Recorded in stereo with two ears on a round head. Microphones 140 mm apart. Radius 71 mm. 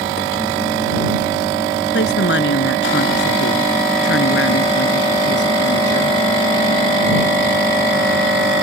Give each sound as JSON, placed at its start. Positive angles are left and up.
{"t": 1.9, "sound": "a woman speaking", "side_deg": 75}